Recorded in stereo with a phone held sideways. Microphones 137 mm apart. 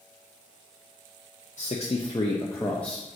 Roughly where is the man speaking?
Left.